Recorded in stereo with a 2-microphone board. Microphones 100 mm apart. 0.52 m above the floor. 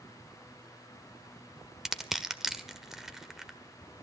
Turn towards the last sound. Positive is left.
turn(degrees=-5)  # may be behind; listen again after turning